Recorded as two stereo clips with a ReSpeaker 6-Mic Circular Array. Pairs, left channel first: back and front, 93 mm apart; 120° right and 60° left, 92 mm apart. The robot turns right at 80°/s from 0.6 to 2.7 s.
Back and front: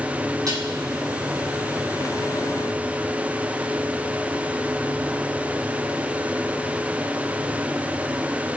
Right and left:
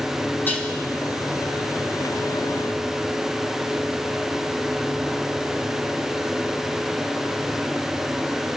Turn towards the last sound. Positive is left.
turn(degrees=120)